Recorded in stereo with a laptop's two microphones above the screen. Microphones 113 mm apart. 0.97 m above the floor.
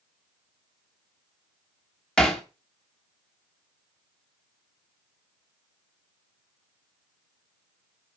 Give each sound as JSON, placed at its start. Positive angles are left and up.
{"t": 2.2, "sound": "hammering", "side_deg": 5, "distance_m": 0.9}